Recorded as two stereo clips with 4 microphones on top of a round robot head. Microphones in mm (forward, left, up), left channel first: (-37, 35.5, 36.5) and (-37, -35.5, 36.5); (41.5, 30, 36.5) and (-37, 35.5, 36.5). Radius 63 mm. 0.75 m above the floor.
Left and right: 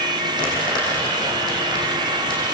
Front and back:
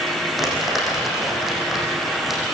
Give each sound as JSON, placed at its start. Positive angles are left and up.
{"t": 0.4, "sound": "crumpling", "azimuth_deg": 90, "distance_m": 9.0}